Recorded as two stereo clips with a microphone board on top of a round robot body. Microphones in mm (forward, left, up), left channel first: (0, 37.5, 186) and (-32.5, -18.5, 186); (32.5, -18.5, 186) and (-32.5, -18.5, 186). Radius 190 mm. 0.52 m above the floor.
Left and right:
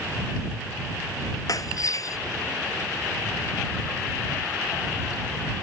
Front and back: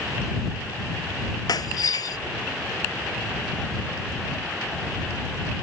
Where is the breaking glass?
25° left.